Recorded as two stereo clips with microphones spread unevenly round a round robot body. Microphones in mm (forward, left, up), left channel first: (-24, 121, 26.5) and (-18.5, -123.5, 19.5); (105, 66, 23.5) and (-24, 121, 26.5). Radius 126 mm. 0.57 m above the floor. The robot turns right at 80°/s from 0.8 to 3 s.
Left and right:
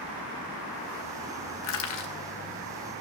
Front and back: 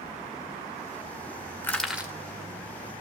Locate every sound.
1.6 s crushing: 50° left, 2 m; by 2.1 s 90° left, 2 m